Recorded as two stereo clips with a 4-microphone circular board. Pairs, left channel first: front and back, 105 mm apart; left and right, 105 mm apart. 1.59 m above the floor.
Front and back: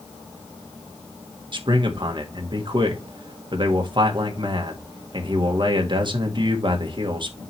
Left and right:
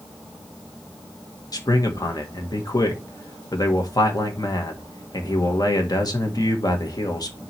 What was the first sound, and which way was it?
A man speaking, 140° left.